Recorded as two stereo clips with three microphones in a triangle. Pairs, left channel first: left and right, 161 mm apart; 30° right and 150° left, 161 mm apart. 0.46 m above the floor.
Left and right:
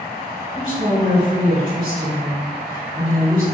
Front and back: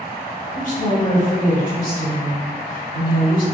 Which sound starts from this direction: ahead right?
A woman speaking, at 0.5 s.